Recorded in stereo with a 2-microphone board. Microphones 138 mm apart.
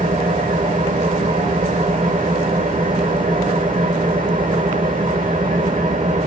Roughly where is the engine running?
Right.